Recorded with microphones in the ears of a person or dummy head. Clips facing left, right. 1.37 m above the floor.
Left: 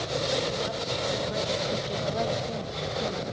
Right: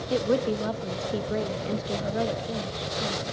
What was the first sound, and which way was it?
A woman speaking, 70° right (ahead or behind).